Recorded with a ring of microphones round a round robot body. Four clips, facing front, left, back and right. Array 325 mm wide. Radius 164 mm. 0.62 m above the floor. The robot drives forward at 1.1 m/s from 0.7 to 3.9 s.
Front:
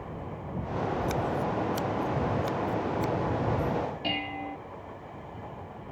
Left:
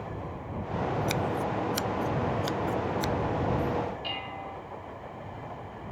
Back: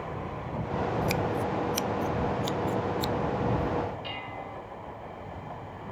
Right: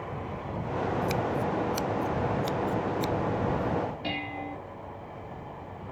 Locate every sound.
1.1 s scissors: 140° left; by 3.1 s 160° left
4.0 s dishes clattering: 40° right